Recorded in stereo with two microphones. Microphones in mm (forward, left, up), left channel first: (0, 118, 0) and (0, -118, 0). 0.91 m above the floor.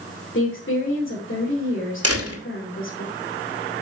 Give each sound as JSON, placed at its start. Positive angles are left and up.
{"t": 0.3, "sound": "a woman speaking", "side_deg": 55, "distance_m": 3.0}
{"t": 2.0, "sound": "a door slam", "side_deg": -80, "distance_m": 2.0}